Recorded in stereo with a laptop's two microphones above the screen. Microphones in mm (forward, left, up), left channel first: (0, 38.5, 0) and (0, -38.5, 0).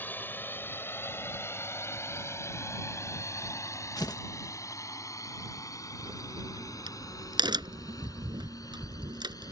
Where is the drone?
20° left (ahead or behind); by 9.5 s 50° left (ahead or behind).